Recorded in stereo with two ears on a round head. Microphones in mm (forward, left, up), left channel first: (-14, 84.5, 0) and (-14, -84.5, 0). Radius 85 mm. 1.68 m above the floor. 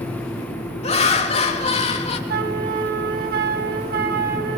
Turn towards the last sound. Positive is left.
turn(degrees=-50)  # may be behind; listen again after turning